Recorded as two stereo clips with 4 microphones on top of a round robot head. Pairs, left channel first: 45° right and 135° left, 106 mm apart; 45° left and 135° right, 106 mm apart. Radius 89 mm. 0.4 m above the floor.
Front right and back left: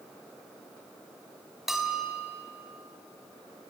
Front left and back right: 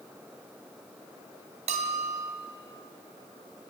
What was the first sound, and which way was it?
A bell, 140° right.